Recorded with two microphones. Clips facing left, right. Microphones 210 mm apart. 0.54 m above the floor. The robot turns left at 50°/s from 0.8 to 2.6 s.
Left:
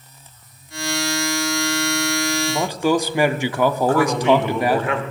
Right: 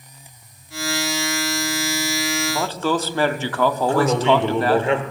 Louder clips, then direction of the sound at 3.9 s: Even; 30° right (ahead or behind).